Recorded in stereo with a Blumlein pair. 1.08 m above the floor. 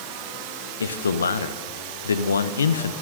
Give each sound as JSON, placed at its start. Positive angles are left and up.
{"t": 0.8, "sound": "a man speaking", "azimuth_deg": 70, "distance_m": 0.6}